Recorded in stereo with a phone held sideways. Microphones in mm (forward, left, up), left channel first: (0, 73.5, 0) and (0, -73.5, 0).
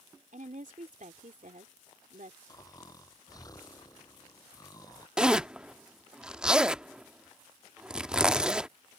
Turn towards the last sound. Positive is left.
turn(degrees=-5)  # may be behind; listen again after turning